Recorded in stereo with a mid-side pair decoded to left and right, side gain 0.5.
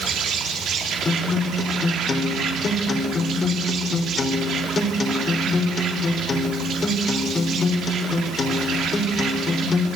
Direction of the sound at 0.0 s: 60° right.